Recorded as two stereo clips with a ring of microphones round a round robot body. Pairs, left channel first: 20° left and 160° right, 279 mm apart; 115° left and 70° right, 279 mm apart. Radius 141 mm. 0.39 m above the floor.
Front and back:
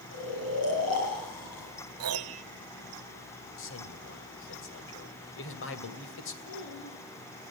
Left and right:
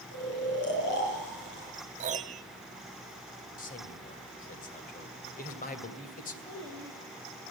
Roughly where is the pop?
No pop in this recording.